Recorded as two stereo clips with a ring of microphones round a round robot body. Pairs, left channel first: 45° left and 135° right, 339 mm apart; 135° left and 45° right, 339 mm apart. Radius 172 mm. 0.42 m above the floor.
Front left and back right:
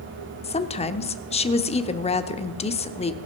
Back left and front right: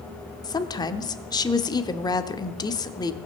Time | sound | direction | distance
0.4 | a woman speaking | 80° left | 0.8 m